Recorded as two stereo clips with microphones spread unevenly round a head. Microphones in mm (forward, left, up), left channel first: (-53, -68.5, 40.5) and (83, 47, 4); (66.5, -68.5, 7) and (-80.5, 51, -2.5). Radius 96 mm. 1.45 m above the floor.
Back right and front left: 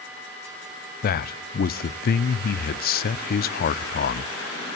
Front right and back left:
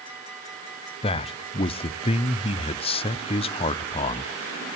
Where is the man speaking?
100° right, 0.6 m.